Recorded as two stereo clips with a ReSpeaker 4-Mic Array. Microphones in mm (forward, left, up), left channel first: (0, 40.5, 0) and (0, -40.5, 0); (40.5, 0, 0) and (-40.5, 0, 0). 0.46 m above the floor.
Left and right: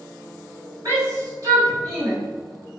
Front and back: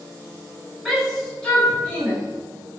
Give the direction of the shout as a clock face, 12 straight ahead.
3 o'clock.